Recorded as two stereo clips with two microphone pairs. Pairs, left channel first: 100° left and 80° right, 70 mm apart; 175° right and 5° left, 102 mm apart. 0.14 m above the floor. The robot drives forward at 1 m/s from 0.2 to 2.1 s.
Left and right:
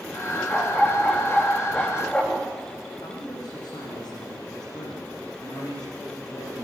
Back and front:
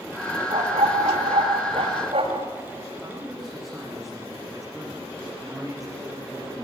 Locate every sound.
0.5 s a dog barking: 20° left, 9.5 m; by 2.5 s 25° left, 8 m
3.0 s a man speaking: 90° left, 9.5 m